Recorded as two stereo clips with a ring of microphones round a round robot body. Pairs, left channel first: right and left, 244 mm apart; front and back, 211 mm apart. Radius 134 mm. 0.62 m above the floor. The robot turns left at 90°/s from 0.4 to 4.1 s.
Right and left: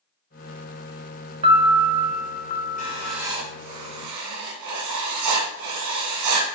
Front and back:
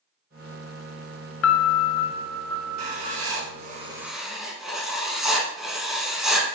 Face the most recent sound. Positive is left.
turn(degrees=90)